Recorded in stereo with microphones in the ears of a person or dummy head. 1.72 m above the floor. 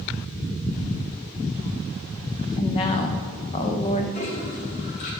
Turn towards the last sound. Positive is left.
turn(degrees=40)  # may be behind; listen again after turning